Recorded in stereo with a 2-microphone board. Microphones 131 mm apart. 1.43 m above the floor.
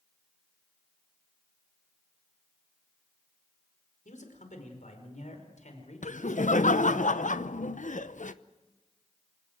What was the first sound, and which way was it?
A man speaking, 75° left (ahead or behind).